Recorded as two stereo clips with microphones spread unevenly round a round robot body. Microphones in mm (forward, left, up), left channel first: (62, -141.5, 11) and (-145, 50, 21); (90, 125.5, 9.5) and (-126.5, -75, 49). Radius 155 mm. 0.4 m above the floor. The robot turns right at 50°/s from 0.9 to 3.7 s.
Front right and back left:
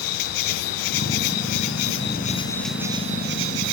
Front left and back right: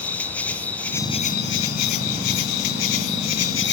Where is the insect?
40° right, 1.4 m; by 3.7 s 100° left, 1.4 m.